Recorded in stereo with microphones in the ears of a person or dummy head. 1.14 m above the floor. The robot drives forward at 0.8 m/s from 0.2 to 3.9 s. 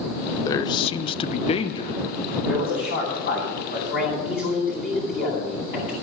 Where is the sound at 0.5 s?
25° left (ahead or behind), 0.8 m; by 2.0 s 20° left (ahead or behind), 0.9 m.